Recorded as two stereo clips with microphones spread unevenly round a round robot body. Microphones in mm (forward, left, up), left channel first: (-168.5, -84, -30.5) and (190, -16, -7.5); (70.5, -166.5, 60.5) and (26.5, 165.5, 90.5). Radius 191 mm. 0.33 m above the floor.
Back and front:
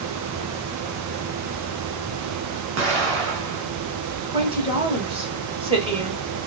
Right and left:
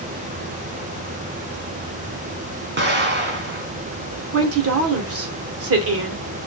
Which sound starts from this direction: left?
A woman speaking, at 4.3 s.